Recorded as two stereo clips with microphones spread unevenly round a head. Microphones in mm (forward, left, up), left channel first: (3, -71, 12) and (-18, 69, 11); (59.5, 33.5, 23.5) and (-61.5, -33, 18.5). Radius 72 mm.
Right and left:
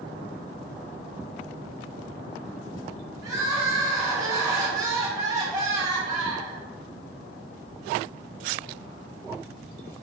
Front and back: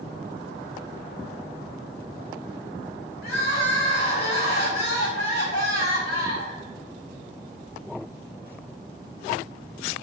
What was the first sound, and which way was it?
Crying, 30° left.